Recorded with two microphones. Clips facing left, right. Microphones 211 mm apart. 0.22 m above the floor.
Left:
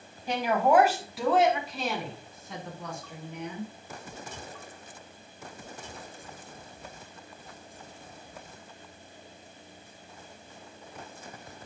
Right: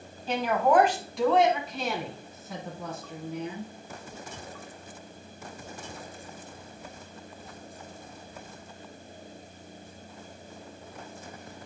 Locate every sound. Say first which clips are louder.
0.3 s a woman speaking: even; 15° left (ahead or behind), 1.5 m; by 3.7 s 5° right (ahead or behind), 3.5 m